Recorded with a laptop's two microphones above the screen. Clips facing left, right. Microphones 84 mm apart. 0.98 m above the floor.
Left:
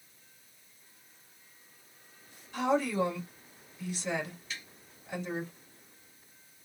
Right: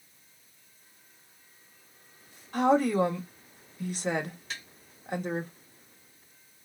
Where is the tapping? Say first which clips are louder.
Right 3 dB; 75° right (ahead or behind), 2.5 m.